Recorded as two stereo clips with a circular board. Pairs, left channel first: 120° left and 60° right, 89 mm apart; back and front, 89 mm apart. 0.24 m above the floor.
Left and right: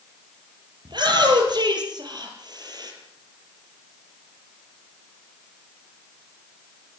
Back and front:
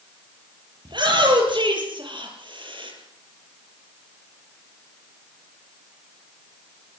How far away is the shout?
About 7.5 m.